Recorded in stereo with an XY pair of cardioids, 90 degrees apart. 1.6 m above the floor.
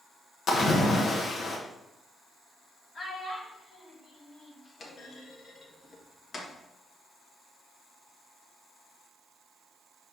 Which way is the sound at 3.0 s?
45° left.